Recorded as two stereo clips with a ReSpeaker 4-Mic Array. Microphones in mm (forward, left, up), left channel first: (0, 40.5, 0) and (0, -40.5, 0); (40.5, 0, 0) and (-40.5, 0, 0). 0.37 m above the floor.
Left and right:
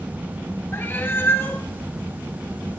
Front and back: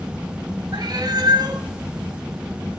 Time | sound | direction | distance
0.7 | a cat meowing | 150° left | 1.4 m